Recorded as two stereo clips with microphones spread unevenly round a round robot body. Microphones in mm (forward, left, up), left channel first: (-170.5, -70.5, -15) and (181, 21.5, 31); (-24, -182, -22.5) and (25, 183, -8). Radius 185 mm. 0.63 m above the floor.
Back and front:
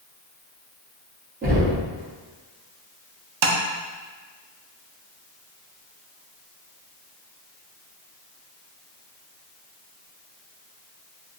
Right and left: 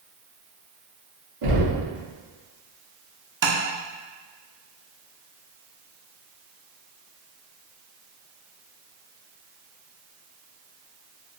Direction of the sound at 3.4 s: 20° left.